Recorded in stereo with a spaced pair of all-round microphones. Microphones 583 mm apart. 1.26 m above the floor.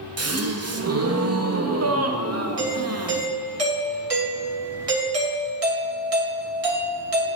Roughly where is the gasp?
Right.